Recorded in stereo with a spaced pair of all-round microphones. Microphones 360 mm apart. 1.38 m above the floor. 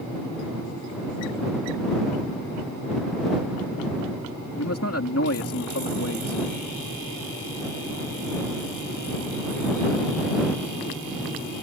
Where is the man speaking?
45° left (ahead or behind).